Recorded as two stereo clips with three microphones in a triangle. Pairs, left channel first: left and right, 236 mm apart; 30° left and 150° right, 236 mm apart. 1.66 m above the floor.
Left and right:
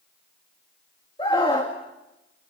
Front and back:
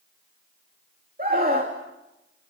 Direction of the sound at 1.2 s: 160° left.